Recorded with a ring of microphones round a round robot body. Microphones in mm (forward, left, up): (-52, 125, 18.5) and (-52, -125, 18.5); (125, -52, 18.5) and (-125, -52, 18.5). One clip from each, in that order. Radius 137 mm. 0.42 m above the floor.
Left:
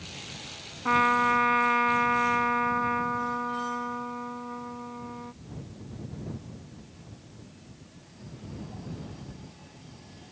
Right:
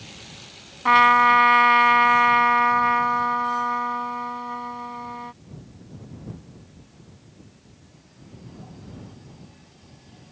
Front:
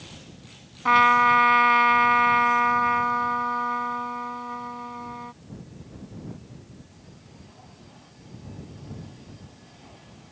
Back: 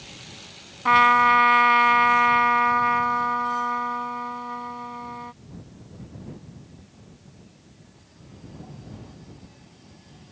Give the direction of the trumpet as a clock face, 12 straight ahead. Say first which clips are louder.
Right 8 dB, back 1 dB; 3 o'clock.